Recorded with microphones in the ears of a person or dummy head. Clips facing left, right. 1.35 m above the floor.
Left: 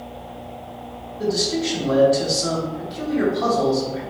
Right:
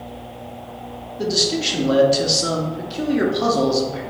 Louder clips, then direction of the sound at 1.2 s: Even; 35° right (ahead or behind).